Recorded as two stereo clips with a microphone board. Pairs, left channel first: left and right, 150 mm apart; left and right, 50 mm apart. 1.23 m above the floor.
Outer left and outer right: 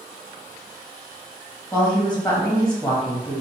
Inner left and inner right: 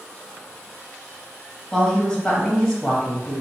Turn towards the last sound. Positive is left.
turn(degrees=5)  # may be behind; listen again after turning